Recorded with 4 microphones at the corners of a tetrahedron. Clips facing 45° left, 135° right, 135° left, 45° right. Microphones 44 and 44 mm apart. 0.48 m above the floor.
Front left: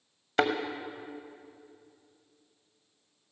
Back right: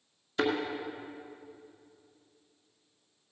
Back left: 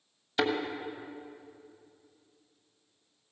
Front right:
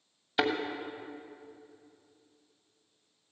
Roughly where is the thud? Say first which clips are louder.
Front left 3 dB, even; ahead left.